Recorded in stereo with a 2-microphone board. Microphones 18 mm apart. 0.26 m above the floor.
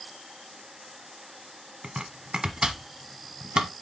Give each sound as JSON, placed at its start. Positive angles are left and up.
{"t": 1.8, "sound": "chopping", "side_deg": -55, "distance_m": 1.1}